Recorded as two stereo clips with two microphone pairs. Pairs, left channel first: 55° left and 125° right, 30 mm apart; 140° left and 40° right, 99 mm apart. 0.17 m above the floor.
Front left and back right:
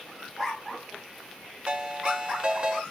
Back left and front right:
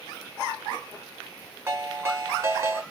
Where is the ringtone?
85° right, 0.9 m.